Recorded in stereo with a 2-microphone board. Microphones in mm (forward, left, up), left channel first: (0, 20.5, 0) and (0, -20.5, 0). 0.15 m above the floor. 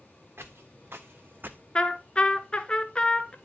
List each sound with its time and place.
0.4 s footsteps: 75° right (ahead or behind), 1.2 m; by 1.6 s 50° right (ahead or behind), 0.6 m
1.8 s a trumpet: 25° left (ahead or behind), 0.6 m